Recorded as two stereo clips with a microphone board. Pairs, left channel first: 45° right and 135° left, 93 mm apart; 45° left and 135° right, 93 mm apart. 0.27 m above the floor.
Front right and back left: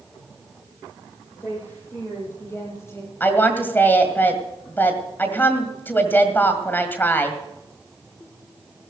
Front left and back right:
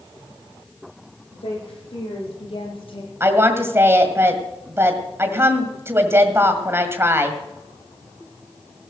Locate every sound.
1.3 s a woman speaking: 25° left, 8.5 m; by 3.1 s 20° left, 6.5 m
3.2 s a woman speaking: 95° right, 1.7 m